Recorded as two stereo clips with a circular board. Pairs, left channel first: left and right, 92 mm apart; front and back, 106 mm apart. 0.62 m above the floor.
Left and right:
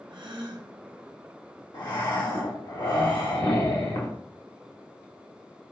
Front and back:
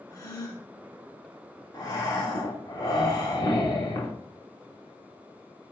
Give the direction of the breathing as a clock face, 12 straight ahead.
10 o'clock.